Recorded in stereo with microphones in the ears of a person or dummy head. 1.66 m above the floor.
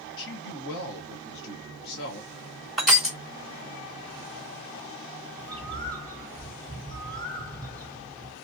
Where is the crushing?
Centre (ahead or behind), 1.2 m.